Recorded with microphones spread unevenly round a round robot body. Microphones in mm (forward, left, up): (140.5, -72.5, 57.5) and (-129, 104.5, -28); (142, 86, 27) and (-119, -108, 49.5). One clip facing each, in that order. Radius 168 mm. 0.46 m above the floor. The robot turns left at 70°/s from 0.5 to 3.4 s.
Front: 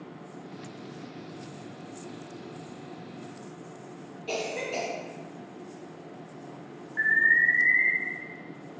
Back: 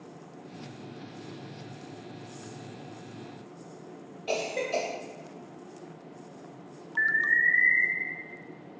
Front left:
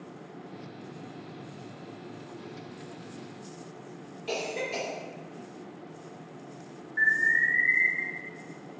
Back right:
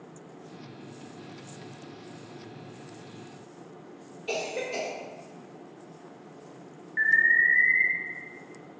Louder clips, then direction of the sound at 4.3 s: Back 2 dB, back right 1 dB; 95° left.